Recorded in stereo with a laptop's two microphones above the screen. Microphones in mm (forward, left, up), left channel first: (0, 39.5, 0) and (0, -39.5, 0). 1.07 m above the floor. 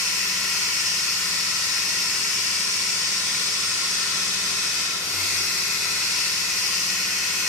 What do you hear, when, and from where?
0.0 s running water: centre (ahead or behind), 3 m